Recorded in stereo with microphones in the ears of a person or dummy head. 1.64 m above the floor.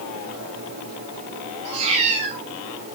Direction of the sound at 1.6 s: 45° right (ahead or behind).